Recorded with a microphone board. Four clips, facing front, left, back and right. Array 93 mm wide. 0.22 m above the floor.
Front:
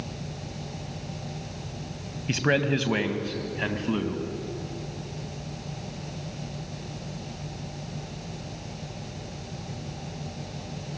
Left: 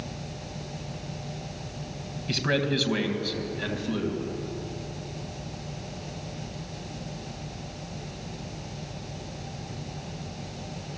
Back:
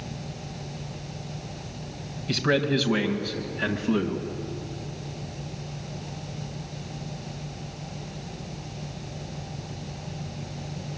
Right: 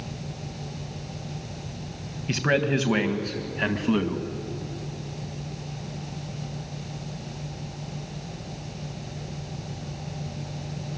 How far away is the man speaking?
About 1.7 m.